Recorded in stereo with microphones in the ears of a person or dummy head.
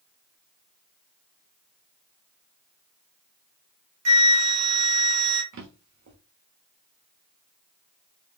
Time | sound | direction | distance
4.0 | a flute | 75° right (ahead or behind) | 1.1 m
5.5 | a drawer | 50° right (ahead or behind) | 0.9 m